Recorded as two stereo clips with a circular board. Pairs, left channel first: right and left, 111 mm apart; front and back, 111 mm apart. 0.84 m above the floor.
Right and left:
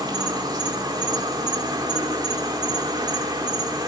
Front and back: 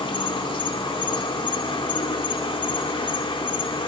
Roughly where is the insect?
Ahead left.